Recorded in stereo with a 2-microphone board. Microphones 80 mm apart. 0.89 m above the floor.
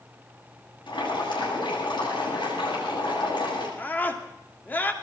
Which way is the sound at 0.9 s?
75° left (ahead or behind).